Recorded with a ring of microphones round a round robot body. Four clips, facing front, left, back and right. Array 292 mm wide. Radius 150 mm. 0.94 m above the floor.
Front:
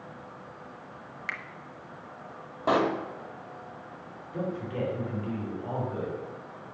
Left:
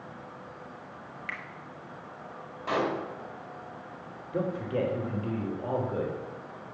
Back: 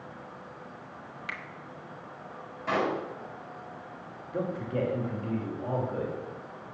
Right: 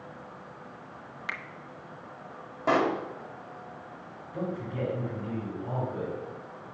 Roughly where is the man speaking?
Left.